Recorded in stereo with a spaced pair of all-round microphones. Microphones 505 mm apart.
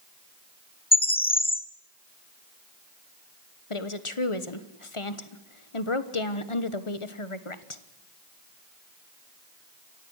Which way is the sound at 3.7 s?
75° left (ahead or behind).